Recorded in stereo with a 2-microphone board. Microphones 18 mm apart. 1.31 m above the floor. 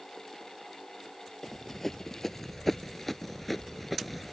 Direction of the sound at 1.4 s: 20° left (ahead or behind).